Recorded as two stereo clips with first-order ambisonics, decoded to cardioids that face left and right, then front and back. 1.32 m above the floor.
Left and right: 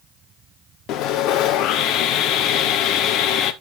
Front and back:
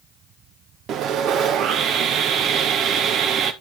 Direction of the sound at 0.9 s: 130° left.